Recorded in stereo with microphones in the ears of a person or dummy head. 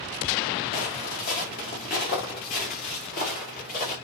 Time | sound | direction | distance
0.7 | footsteps | 50° left (ahead or behind) | 6.5 m